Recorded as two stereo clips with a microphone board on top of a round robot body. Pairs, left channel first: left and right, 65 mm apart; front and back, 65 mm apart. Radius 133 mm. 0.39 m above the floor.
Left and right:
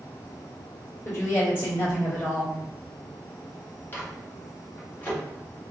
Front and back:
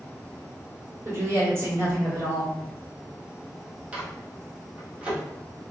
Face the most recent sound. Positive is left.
turn(degrees=125)